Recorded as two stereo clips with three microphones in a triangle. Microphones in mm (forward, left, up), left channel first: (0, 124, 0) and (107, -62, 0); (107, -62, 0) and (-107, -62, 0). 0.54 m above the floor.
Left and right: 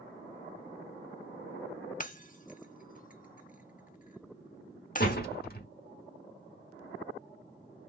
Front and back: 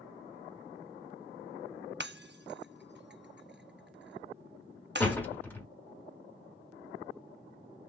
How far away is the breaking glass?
About 0.5 m.